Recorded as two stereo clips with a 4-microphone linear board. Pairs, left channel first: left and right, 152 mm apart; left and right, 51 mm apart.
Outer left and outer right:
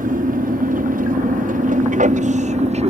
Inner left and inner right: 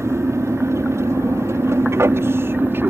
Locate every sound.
0.0 s an aircraft: 60° right (ahead or behind); by 2.9 s 40° right (ahead or behind)